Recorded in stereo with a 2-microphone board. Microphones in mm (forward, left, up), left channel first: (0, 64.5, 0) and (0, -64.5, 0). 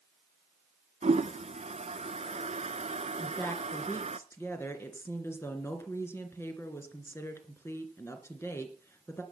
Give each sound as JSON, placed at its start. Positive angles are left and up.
{"t": 1.0, "sound": "a toilet flushing", "side_deg": -65, "distance_m": 0.7}
{"t": 3.2, "sound": "a woman speaking", "side_deg": 20, "distance_m": 2.5}